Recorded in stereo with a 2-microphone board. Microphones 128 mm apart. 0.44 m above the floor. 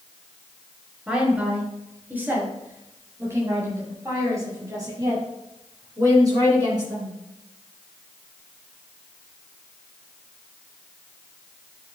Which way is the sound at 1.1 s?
5° right (ahead or behind).